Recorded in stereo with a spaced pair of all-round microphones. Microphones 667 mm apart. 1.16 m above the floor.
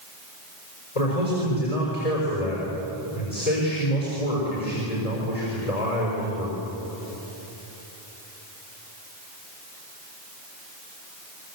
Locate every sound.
0.9 s a man speaking: 60° left (ahead or behind), 5.5 m